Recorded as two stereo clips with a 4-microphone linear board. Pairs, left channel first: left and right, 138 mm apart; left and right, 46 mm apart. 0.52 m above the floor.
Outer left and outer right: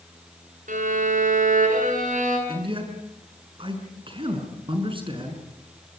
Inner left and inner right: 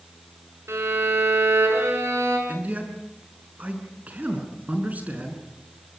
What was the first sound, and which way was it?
A violin, 70° right (ahead or behind).